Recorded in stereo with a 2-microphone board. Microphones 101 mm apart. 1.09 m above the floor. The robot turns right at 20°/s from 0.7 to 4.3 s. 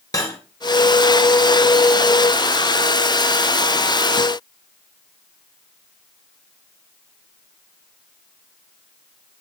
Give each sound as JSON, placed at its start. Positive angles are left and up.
{"t": 0.1, "sound": "cutlery clinking", "side_deg": 35, "distance_m": 2.5}